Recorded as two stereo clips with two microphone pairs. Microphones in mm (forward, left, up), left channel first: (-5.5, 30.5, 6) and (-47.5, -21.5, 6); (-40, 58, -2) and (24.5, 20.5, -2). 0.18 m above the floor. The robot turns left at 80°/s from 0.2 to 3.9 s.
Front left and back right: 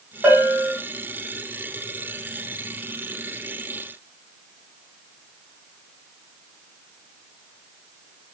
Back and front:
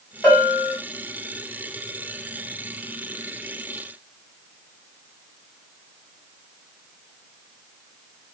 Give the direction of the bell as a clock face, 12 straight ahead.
5 o'clock.